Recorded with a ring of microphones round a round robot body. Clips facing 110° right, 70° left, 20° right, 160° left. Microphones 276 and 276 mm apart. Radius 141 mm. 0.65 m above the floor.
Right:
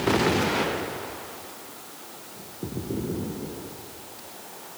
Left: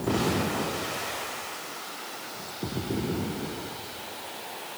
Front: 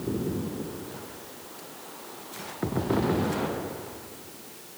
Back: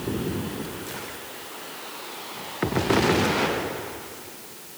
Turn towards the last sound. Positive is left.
No sound to turn to.